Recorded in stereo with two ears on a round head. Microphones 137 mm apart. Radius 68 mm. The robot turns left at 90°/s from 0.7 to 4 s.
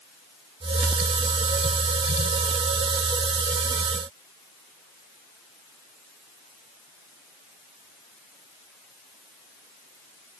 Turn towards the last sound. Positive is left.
No sound to turn to.